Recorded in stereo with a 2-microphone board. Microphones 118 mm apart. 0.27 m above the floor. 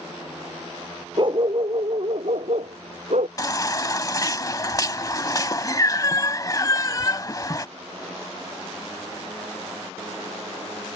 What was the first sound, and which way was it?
A dog barking, 45° right (ahead or behind).